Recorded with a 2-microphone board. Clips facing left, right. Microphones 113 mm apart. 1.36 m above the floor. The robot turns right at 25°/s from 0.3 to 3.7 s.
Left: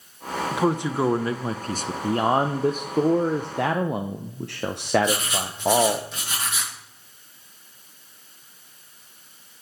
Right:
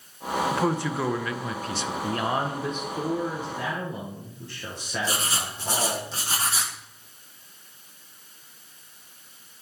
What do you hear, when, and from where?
0.5 s a man speaking: 10° left, 0.8 m; by 1.9 s 45° left, 0.8 m
2.0 s a man speaking: 30° left, 0.7 m; by 6.0 s 70° left, 0.7 m
5.0 s writing: 35° right (ahead or behind), 1.7 m